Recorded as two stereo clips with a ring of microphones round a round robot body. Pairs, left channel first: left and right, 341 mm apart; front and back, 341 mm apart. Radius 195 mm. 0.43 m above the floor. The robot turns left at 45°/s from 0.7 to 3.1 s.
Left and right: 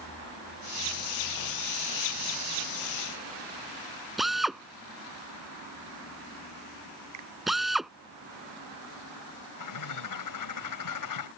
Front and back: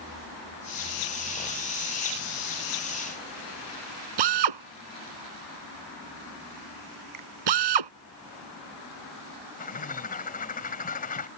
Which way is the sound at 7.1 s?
135° right.